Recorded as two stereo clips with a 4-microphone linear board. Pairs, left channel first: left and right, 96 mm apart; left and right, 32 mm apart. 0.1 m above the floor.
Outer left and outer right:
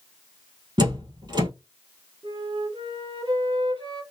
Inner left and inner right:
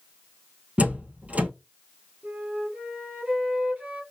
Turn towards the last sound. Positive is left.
turn(degrees=-50)  # may be behind; listen again after turning